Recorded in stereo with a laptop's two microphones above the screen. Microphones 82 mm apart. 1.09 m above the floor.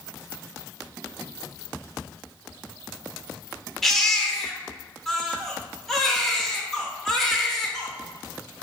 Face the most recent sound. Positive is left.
turn(degrees=5)  # may be behind; listen again after turning